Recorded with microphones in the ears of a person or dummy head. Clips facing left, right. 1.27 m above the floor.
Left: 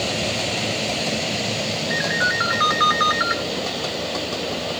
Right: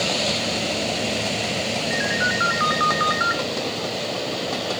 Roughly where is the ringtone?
Left.